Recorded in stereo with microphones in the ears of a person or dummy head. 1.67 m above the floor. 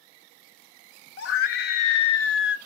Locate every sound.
1.2 s a scream: 70° left (ahead or behind), 0.7 m